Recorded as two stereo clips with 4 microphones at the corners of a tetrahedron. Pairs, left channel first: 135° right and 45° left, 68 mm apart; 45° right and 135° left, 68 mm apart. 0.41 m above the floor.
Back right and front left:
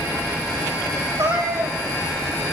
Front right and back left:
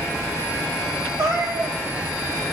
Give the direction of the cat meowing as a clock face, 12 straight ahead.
9 o'clock.